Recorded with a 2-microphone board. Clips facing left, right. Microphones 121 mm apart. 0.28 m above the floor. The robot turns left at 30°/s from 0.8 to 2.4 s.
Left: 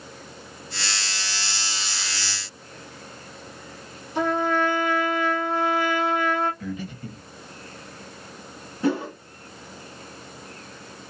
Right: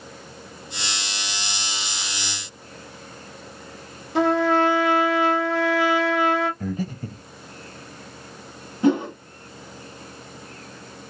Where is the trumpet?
80° right, 0.7 m.